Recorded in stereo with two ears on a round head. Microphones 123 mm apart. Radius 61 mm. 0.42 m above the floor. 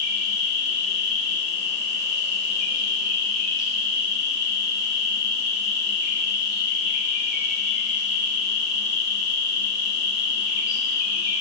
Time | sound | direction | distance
0.0 | an insect | 60° left (ahead or behind) | 2.5 m